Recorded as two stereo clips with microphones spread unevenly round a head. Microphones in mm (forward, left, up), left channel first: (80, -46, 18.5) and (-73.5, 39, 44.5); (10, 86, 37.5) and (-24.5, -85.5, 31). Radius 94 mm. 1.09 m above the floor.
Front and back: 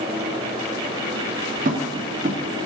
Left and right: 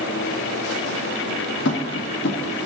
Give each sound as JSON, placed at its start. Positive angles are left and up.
{"t": 1.6, "sound": "tapping", "azimuth_deg": 105, "distance_m": 1.1}